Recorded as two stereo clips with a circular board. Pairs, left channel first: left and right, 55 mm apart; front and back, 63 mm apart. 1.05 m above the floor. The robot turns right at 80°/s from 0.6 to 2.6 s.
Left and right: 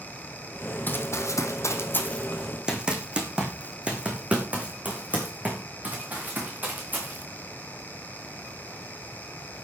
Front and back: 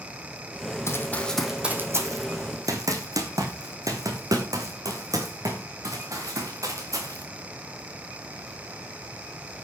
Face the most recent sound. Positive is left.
turn(degrees=-145)